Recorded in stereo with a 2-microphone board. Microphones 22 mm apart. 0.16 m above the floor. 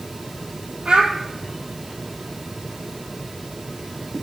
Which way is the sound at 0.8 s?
55° right (ahead or behind).